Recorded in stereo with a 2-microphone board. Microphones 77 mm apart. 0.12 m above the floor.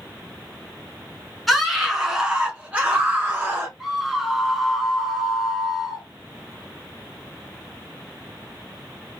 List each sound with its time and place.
1.5 s a scream: centre (ahead or behind), 1.4 m; by 3.7 s 25° right (ahead or behind), 1.6 m
3.8 s a scream: centre (ahead or behind), 1.0 m